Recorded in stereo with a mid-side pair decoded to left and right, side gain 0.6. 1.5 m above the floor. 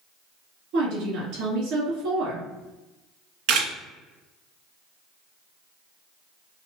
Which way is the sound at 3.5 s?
70° right.